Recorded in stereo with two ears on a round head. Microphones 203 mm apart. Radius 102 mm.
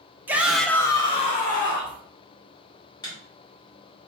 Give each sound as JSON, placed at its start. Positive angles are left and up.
{"t": 0.3, "sound": "a shout", "side_deg": -10, "distance_m": 0.6}
{"t": 3.0, "sound": "a microwave", "side_deg": 20, "distance_m": 1.2}